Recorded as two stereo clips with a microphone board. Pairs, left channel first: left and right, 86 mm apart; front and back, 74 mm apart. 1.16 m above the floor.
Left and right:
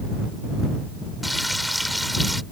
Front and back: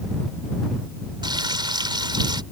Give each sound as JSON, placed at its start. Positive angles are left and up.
{"t": 1.2, "sound": "frying", "azimuth_deg": 180}